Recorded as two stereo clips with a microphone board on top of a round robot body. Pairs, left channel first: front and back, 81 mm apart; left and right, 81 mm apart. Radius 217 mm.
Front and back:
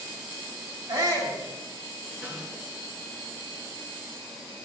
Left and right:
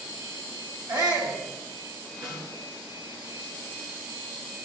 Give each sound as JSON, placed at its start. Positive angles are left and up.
{"t": 0.9, "sound": "a shout", "azimuth_deg": -135, "distance_m": 4.5}
{"t": 2.2, "sound": "a snare drum", "azimuth_deg": -110, "distance_m": 4.5}